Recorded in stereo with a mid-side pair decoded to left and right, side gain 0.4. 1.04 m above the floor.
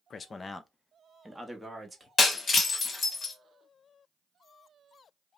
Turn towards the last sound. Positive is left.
turn(degrees=45)